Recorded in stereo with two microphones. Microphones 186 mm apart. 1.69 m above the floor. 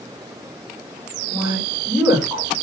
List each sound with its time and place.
1.3 s a woman speaking: 15° right (ahead or behind), 4.5 m